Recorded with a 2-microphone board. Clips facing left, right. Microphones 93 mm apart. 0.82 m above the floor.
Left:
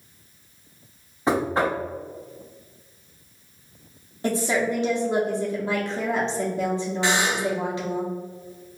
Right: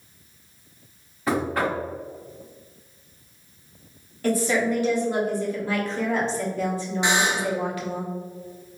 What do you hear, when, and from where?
1.3 s knocking: 25° left (ahead or behind), 0.8 m
4.2 s a woman speaking: 20° left (ahead or behind), 1.4 m
7.0 s a buzzer: 20° right (ahead or behind), 0.8 m